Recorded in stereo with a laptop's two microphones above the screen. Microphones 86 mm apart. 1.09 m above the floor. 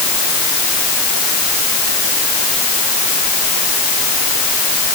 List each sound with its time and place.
Only background noise.